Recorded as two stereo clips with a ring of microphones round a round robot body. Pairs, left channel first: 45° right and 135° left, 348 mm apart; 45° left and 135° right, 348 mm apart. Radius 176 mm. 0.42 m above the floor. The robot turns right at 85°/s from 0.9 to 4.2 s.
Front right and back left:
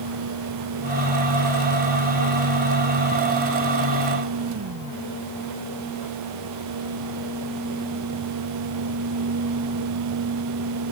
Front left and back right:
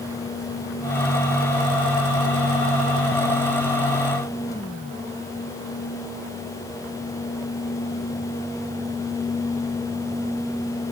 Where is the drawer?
I don't hear a drawer.